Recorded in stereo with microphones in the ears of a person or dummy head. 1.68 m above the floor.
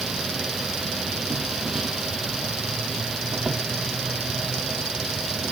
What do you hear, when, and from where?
0.0 s an insect: centre (ahead or behind)